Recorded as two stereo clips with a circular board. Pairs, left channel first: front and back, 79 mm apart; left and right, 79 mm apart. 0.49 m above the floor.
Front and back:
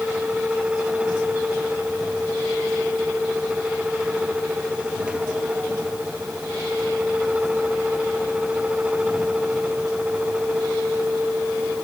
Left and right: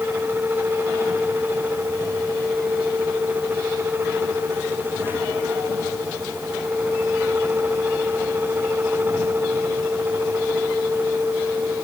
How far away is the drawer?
I don't hear a drawer.